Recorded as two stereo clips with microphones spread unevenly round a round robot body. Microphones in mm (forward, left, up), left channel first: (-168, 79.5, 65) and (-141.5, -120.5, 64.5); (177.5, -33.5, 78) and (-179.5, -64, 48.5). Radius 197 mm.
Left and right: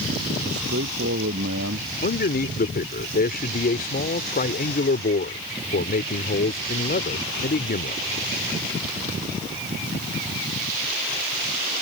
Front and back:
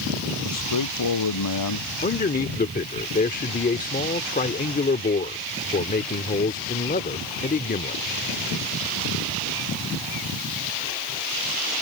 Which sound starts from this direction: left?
A man speaking, at 2.0 s.